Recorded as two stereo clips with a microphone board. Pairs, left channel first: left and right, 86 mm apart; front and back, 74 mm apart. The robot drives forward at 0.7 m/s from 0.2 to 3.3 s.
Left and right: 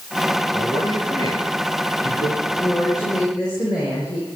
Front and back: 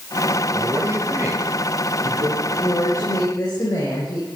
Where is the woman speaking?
50° left, 6 m; by 4.3 s 55° left, 5.5 m.